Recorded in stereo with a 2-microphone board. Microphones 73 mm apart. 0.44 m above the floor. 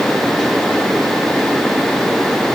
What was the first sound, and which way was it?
Only background noise.